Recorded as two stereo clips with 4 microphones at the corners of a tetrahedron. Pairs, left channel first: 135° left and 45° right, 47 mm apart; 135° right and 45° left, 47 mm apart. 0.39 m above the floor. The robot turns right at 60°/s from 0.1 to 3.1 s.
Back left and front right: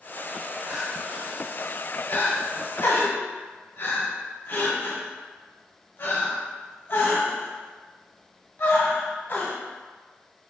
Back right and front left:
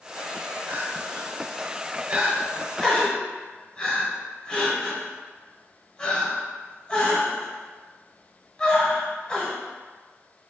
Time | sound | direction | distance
0.7 | crying | 10° left | 1.4 m